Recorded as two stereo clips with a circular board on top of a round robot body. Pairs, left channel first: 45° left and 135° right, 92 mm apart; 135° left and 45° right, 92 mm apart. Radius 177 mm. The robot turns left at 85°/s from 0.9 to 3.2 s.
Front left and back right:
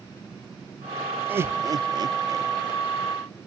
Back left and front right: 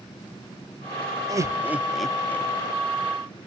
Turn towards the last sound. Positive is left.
turn(degrees=125)